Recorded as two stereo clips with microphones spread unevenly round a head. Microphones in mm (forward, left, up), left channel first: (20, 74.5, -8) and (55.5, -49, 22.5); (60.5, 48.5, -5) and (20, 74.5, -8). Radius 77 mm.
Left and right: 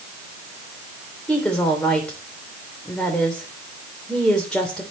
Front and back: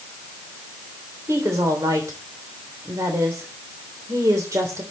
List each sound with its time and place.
1.3 s a woman speaking: 170° right, 3 m